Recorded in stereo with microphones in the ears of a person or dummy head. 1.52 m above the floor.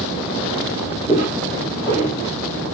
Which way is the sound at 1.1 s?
5° right (ahead or behind).